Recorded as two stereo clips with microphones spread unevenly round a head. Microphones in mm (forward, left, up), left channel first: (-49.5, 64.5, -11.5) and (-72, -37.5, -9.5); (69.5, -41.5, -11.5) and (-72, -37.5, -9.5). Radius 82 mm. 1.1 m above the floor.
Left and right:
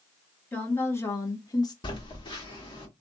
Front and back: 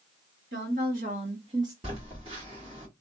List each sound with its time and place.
0.5 s a woman speaking: 150° left, 1.4 m; by 1.7 s 110° left, 0.7 m
1.8 s a phone buzzing: 120° left, 1.4 m